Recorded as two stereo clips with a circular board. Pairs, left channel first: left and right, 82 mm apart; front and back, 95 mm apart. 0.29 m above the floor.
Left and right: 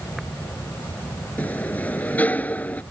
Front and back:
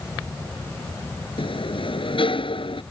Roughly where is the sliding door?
Ahead.